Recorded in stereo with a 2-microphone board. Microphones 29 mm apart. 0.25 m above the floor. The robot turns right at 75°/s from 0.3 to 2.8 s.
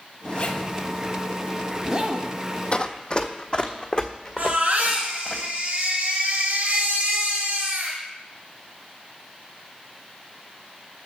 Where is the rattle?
I don't hear a rattle.